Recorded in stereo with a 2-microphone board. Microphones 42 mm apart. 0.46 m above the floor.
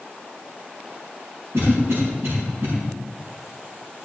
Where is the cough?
75° right (ahead or behind), 5 m.